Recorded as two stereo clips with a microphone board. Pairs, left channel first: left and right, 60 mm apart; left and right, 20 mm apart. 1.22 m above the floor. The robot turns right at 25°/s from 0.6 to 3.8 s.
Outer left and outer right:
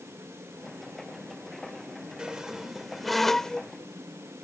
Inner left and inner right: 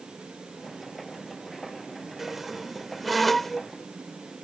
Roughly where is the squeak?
Ahead.